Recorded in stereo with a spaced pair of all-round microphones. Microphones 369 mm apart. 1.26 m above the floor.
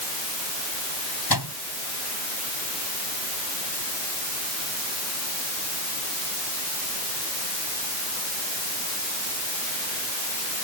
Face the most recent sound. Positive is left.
turn(degrees=80)